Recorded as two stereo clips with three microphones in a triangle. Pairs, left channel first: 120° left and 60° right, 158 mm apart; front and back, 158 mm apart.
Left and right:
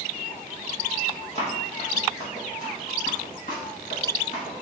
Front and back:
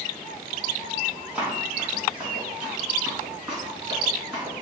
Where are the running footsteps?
100° left, 1.8 m.